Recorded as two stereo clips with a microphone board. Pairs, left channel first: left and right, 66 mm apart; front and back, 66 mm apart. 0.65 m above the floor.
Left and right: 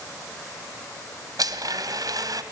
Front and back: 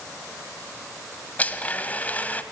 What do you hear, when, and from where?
1.4 s a blender: 65° right, 1.7 m